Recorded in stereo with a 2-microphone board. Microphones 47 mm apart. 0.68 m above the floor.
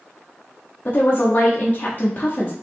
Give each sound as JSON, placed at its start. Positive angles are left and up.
{"t": 0.8, "sound": "a woman speaking", "side_deg": 40, "distance_m": 0.8}